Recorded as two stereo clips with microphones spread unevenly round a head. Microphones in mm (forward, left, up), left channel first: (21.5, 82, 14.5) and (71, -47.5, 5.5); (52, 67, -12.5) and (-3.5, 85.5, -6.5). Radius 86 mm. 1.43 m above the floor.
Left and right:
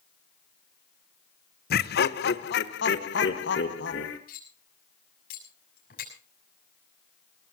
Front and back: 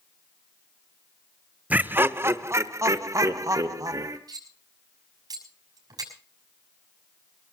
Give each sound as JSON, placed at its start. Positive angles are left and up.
{"t": 1.7, "sound": "laughter", "azimuth_deg": 95, "distance_m": 1.1}
{"t": 4.3, "sound": "cutlery clinking", "azimuth_deg": 155, "distance_m": 6.5}